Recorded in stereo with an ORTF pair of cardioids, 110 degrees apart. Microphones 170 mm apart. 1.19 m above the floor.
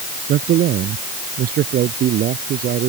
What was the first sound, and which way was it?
A man speaking, 65° right.